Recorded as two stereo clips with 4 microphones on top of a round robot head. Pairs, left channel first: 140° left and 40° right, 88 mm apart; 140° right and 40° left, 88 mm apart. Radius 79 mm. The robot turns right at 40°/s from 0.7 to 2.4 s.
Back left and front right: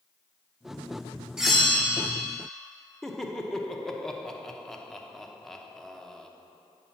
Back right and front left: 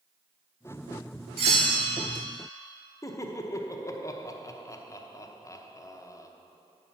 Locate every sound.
1.4 s a bell: 45° left, 0.9 m; by 2.2 s 75° left, 0.9 m
3.0 s laughter: 135° right, 0.9 m